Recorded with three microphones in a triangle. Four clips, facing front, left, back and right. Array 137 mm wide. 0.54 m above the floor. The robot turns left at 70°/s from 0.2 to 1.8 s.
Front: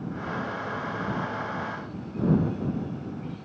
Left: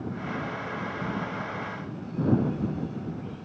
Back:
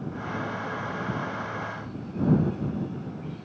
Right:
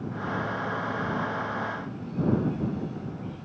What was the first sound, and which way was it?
Only background noise.